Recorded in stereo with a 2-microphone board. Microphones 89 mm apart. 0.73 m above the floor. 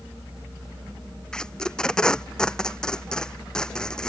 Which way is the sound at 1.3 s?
10° left (ahead or behind).